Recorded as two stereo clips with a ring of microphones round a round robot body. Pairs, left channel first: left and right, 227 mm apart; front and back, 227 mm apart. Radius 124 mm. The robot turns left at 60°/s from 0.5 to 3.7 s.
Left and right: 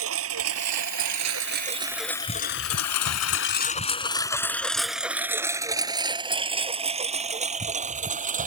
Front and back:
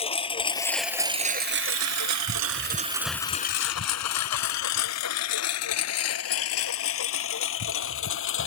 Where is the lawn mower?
65° right; by 8.5 s 35° right.